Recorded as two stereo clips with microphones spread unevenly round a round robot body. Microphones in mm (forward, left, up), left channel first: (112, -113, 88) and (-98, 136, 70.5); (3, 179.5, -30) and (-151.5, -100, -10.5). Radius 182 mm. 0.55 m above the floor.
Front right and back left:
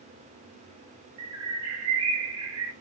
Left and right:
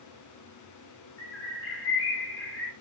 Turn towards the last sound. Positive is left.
turn(degrees=100)